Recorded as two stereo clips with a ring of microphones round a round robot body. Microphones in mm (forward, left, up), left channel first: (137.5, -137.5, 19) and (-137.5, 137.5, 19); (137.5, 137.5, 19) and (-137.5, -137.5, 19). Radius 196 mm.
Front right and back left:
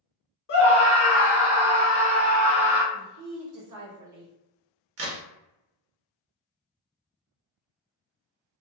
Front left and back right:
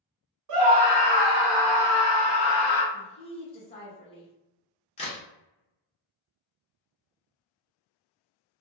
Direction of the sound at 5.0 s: 110° left.